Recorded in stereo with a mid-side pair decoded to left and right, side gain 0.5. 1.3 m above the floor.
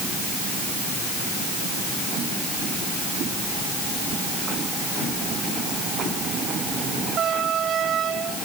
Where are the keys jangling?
I don't hear keys jangling.